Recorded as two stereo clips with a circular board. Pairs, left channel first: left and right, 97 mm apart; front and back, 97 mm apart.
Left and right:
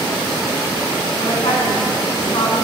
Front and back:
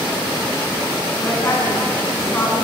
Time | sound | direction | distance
1.2 | a woman speaking | 60° left | 9 m